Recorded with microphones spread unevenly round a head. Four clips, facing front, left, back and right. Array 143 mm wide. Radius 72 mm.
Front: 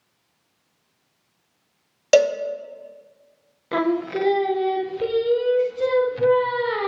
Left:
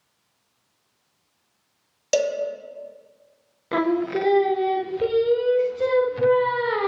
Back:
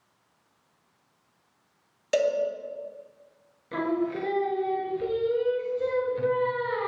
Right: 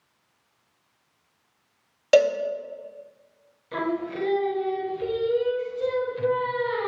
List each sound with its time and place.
2.1 s a cowbell: 20° right, 0.7 m
3.7 s singing: 50° left, 0.7 m